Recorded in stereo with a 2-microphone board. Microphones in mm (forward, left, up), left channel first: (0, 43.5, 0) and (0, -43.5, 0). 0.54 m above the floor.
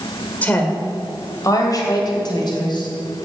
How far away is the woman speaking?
About 2 m.